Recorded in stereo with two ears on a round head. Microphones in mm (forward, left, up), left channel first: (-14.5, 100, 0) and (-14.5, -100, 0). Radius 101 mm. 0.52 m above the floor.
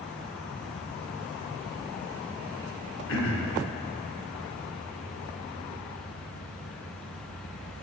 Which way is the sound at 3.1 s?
55° left (ahead or behind).